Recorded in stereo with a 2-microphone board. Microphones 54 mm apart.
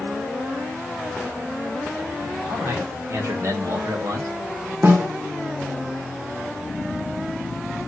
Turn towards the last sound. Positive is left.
turn(degrees=-45)  # may be behind; listen again after turning